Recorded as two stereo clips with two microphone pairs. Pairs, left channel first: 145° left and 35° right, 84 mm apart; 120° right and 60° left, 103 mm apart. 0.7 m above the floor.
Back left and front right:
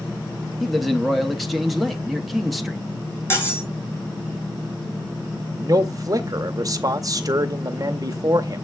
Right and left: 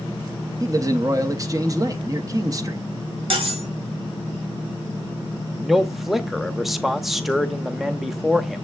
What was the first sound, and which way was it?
A man speaking, 55° left.